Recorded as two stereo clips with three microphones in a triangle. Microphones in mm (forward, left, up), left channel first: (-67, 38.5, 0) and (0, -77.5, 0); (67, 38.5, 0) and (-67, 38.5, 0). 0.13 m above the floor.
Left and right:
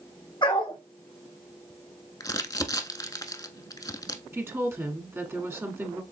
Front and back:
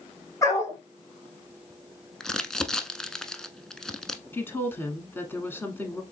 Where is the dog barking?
70° left, 2 m.